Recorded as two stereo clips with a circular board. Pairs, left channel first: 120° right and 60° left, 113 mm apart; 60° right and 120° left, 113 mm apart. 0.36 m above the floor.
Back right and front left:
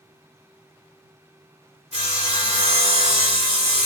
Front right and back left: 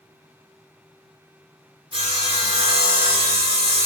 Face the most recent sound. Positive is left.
turn(degrees=80)